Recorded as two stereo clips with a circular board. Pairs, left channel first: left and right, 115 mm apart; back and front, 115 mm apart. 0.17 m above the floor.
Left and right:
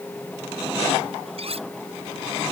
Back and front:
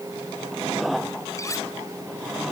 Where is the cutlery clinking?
120° right.